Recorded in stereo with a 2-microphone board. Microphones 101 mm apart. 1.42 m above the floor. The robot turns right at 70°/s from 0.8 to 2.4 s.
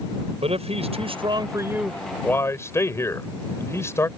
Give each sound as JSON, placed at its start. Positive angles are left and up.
{"t": 0.4, "sound": "a man speaking", "azimuth_deg": -85}